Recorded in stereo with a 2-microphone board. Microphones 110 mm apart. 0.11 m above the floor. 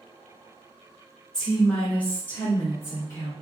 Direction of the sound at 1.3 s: 5° left (ahead or behind).